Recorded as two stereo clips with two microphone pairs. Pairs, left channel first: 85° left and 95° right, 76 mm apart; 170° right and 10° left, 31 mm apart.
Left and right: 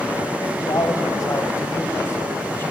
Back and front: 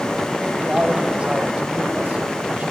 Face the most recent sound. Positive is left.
turn(degrees=30)